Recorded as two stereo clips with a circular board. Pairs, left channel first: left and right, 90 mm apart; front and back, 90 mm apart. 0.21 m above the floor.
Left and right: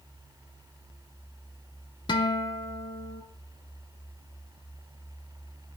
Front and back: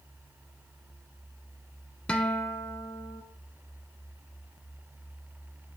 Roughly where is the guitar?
Left.